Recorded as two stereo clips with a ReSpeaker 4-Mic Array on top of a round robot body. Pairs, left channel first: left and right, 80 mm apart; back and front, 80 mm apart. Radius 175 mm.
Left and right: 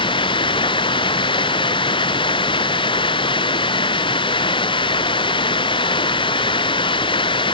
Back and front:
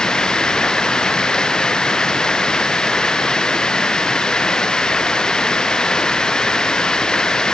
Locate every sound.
0.0 s running water: 95° left